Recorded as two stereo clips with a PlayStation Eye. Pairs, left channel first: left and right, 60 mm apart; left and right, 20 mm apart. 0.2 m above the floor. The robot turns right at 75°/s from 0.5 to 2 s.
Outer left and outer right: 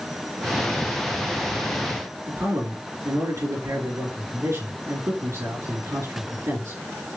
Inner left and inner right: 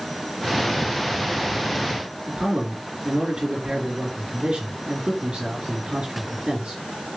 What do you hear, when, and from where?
2.3 s a man speaking: 55° right (ahead or behind), 3 m